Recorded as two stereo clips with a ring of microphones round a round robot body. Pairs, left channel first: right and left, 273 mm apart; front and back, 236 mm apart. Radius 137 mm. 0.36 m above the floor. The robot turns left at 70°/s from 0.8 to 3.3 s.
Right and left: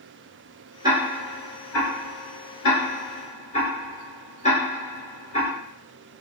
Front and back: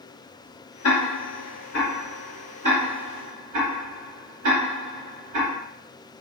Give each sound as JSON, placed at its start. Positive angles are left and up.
{"t": 0.8, "sound": "ticking", "azimuth_deg": 15, "distance_m": 1.9}